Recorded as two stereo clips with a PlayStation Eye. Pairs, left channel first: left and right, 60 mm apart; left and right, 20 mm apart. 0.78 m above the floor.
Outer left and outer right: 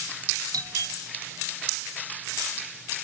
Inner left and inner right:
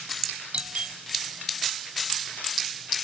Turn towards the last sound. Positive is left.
turn(degrees=-80)